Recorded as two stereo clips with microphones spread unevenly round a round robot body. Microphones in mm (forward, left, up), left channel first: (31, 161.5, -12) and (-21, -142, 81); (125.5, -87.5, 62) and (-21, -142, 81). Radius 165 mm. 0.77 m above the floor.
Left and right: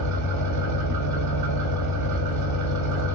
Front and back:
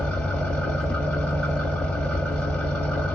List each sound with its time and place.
0.0 s an engine running: 60° right, 0.9 m